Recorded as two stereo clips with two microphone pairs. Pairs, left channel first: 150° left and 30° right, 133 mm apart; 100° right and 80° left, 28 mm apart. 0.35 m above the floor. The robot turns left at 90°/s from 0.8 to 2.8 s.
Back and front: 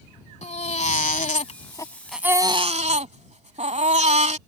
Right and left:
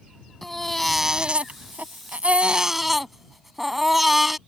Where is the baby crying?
Straight behind; by 4.4 s straight ahead.